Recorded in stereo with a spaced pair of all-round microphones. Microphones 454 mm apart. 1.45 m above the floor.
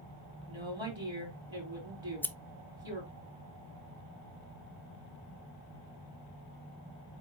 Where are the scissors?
5° left (ahead or behind), 0.6 m.